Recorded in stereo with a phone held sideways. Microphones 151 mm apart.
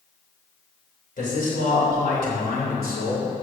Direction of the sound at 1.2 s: 65° left (ahead or behind).